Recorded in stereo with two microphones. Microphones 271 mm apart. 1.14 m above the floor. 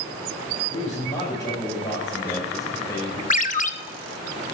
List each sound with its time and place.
0.7 s a man speaking: 10° left (ahead or behind), 6.5 m
3.3 s a ringtone: 30° left (ahead or behind), 0.7 m